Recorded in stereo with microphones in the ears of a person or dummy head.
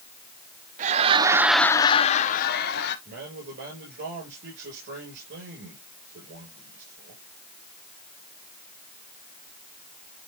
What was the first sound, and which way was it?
Laughter, 45° right (ahead or behind).